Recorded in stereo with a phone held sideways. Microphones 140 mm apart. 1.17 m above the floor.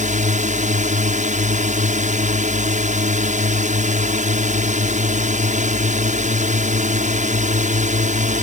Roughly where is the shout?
No shout in this recording.